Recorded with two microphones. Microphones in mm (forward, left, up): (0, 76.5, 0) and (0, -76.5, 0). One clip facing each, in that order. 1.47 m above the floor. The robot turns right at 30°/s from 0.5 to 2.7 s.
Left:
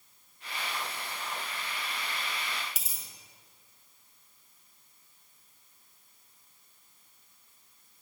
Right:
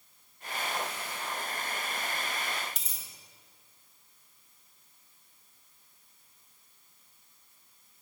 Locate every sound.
2.8 s a dropped coin: 5° left (ahead or behind), 1.0 m